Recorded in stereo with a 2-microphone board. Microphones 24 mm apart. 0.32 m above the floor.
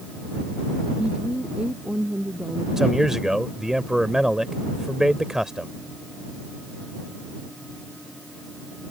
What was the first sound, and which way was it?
A woman speaking, 80° right.